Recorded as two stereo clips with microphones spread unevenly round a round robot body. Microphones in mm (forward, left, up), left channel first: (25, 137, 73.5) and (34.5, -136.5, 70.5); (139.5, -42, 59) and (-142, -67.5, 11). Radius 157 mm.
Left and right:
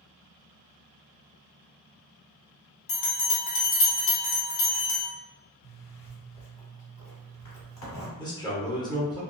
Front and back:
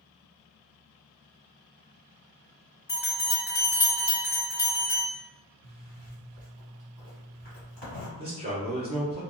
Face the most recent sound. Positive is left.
turn(degrees=155)